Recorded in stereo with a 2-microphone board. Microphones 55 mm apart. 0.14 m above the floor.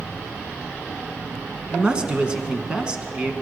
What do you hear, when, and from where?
1.7 s a man speaking: 20° right (ahead or behind), 1.1 m